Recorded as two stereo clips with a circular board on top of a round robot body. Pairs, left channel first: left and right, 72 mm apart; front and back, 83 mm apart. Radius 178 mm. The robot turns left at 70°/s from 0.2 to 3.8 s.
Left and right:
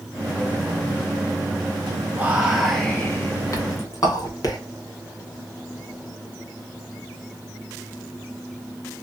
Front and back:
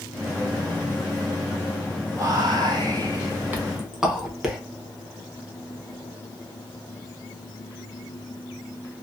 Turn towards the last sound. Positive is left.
turn(degrees=100)